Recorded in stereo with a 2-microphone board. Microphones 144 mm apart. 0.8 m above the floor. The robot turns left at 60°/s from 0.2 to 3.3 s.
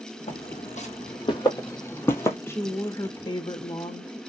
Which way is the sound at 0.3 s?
55° left (ahead or behind).